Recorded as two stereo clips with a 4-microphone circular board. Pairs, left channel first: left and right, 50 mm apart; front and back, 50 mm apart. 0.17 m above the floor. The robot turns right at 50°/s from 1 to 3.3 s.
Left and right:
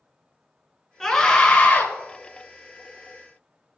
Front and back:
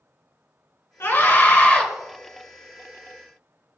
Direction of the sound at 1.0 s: 5° left.